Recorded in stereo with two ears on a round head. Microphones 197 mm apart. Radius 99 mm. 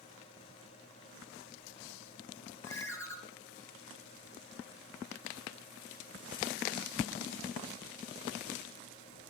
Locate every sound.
2.6 s a ringtone: 15° left (ahead or behind), 2.0 m